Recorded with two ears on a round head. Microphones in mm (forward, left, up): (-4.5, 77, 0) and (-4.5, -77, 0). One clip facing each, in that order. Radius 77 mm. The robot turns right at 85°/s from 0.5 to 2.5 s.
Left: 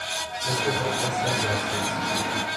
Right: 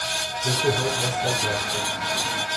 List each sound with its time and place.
0.4 s a man speaking: 70° right, 9.5 m; by 2.0 s 60° left, 9.5 m